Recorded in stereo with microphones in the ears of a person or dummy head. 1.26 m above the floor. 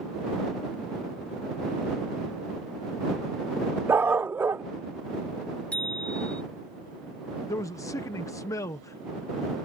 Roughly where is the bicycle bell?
Centre.